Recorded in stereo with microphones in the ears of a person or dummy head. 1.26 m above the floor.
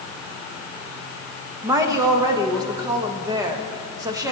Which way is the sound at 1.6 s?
15° right (ahead or behind).